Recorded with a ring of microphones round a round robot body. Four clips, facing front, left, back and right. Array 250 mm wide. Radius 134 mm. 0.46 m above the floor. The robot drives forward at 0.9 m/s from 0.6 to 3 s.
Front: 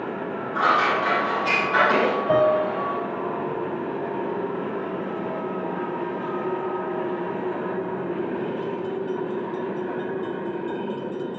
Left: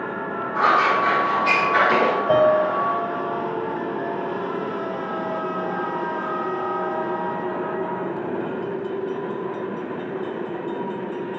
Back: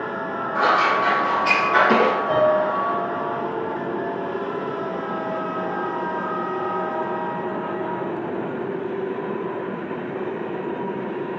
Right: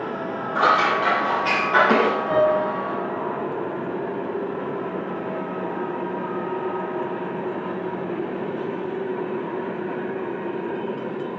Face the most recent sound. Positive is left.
turn(degrees=60)